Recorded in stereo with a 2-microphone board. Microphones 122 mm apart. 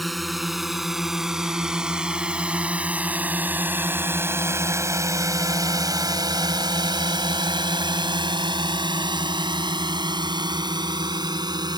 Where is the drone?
Centre (ahead or behind); by 11.8 s 35° right (ahead or behind).